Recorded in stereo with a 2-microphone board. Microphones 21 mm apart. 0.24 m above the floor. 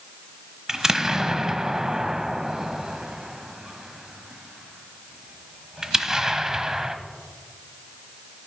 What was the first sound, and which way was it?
An explosion, 30° right (ahead or behind).